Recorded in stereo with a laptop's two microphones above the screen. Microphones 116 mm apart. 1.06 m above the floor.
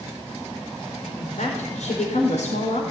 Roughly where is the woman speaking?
Left.